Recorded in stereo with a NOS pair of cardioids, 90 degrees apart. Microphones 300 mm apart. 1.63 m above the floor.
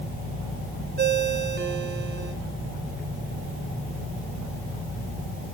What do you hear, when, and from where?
1.0 s a ringtone: 35° right, 2.5 m